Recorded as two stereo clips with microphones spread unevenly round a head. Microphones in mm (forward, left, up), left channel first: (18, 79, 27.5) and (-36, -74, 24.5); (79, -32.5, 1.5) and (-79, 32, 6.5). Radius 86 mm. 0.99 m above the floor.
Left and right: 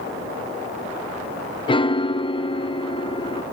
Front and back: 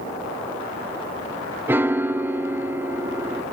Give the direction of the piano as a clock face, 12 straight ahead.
9 o'clock.